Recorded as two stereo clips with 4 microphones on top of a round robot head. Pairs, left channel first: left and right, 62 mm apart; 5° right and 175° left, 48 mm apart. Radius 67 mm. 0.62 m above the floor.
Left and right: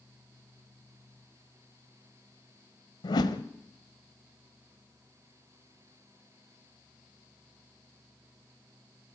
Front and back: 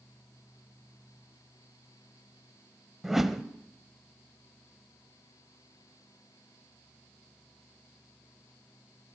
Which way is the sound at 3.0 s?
90° left.